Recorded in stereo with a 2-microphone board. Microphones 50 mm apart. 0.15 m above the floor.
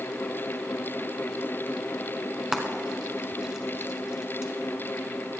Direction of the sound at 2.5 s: 15° right (ahead or behind).